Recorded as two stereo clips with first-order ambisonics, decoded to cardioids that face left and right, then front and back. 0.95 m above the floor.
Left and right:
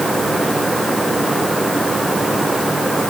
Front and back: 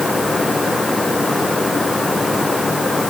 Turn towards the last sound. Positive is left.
No sound to turn to.